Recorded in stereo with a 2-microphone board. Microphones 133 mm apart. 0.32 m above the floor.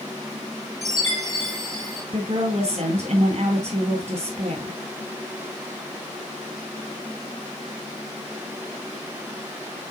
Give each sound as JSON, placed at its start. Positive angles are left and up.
{"t": 0.8, "sound": "a chime", "side_deg": -60, "distance_m": 4.5}
{"t": 2.1, "sound": "a woman speaking", "side_deg": -55, "distance_m": 3.0}